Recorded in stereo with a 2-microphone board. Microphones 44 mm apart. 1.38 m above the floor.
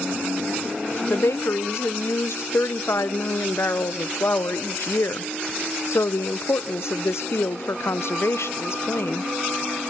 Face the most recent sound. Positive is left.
turn(degrees=70)  # may be behind; listen again after turning